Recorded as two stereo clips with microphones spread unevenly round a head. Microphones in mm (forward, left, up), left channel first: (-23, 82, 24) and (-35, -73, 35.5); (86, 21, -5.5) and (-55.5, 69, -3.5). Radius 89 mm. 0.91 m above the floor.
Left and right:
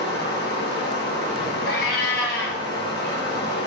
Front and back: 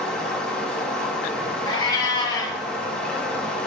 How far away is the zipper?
No zipper in this recording.